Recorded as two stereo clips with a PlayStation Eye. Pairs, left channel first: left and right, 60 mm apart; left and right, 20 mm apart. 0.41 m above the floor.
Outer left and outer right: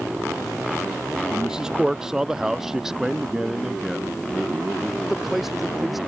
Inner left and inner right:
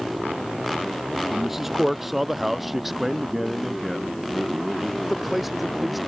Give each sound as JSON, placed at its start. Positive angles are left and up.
{"t": 1.3, "sound": "a man speaking", "side_deg": -10}